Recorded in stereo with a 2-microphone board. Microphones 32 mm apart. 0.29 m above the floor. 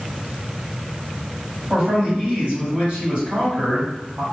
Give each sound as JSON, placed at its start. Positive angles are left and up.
{"t": 1.7, "sound": "a man speaking", "side_deg": -40, "distance_m": 1.9}